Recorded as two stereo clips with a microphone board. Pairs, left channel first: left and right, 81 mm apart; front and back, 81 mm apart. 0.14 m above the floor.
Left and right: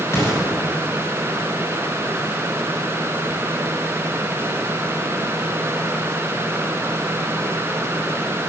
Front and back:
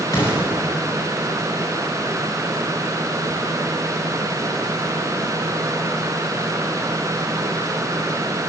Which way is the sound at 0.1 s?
40° left.